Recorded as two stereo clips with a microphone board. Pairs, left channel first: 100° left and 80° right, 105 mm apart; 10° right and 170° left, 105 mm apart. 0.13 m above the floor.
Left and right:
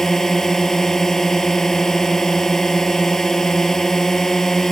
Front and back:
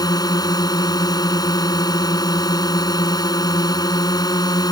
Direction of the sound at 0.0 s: 15° left.